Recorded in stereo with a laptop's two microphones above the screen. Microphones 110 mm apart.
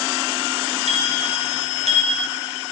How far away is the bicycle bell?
About 6 m.